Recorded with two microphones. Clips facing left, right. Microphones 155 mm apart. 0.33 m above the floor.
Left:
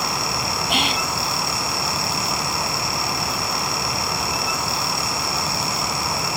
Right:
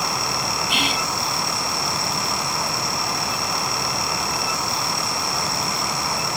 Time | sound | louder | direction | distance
0.7 | whispering | left 3 dB | 55° left (ahead or behind) | 2 m